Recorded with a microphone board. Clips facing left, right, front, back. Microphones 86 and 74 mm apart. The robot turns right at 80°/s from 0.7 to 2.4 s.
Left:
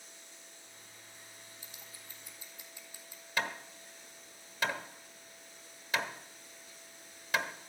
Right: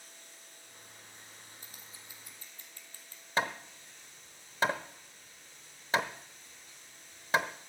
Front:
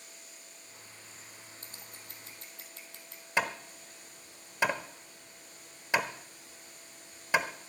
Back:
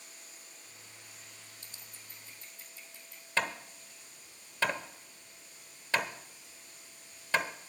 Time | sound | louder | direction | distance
0.0 | running water | even, front 1 dB | 130° right | 10 m
1.6 | scissors | even, front 4 dB | 50° right | 2.5 m
3.4 | hammering | right 4 dB, front 2 dB | 65° right | 1.1 m